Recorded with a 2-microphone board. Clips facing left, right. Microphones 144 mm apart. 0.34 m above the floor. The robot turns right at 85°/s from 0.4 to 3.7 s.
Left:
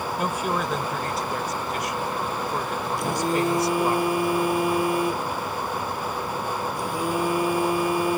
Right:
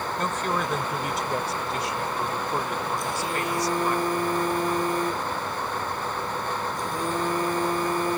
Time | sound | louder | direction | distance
0.2 | a woman speaking | left 1 dB | 10° left (ahead or behind) | ?
3.0 | a phone buzzing | left 5 dB | 110° left | ?